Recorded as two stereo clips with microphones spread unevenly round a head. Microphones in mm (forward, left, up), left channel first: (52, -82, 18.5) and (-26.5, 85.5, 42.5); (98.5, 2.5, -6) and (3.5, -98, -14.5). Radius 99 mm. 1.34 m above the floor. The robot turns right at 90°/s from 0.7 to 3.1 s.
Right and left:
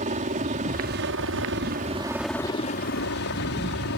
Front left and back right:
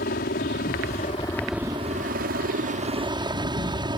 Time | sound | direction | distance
0.0 | a helicopter | 65° left | ?